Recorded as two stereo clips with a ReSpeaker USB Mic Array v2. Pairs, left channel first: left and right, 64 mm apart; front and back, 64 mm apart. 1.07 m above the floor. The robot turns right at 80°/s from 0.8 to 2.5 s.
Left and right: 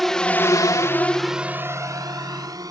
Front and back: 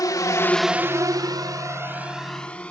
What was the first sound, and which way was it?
A drone, straight ahead.